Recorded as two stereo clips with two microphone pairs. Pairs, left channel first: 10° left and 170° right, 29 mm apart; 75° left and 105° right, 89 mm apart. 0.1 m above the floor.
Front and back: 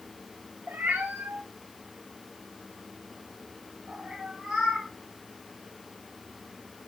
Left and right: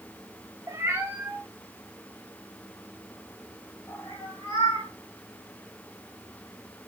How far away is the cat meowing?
About 1.1 m.